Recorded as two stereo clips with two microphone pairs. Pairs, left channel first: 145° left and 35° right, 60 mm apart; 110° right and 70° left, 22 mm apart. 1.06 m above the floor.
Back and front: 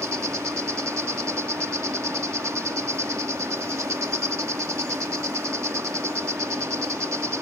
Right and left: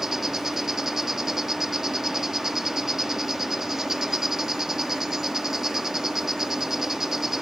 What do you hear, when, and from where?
0.0 s an insect: straight ahead